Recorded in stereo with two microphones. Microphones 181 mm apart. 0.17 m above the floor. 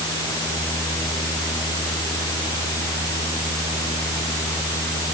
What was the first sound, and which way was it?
Only background noise.